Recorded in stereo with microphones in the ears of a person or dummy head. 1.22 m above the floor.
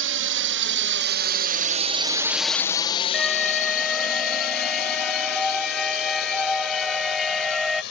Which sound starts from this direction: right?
A drone, at 0.0 s.